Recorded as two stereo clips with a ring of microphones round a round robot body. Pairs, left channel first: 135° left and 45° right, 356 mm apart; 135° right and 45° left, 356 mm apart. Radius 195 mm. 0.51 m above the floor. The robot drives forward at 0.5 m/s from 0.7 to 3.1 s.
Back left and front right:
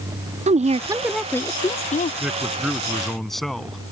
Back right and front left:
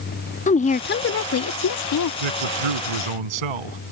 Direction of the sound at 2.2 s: 45° left.